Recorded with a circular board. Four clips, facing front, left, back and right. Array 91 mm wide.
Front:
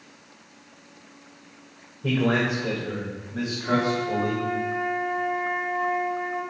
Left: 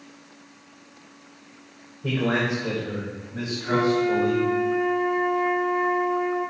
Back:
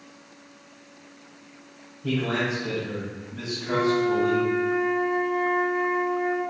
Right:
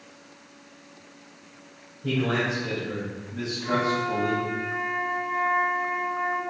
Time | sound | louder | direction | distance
2.0 | a man speaking | left 2 dB, front 3 dB | 20° left | 3 m
3.6 | a flute | left 4 dB, back 2 dB | 70° right | 2.5 m